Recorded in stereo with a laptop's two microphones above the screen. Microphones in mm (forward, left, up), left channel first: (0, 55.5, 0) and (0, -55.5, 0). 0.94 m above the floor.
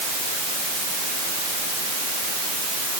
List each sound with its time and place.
Only background noise.